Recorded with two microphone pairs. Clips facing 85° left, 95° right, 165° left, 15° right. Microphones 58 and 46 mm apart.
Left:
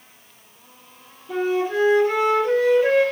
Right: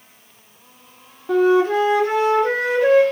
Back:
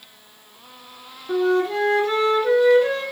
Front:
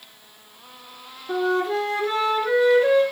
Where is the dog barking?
I don't hear a dog barking.